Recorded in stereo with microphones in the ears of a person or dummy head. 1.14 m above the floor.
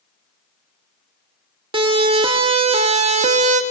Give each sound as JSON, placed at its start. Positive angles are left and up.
{"t": 1.7, "sound": "a siren", "side_deg": -25, "distance_m": 2.0}